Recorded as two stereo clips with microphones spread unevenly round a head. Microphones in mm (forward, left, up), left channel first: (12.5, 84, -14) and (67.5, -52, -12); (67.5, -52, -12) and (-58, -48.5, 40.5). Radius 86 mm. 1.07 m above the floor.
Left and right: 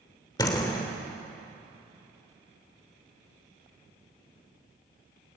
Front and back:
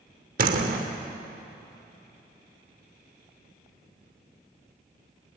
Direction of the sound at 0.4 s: 175° right.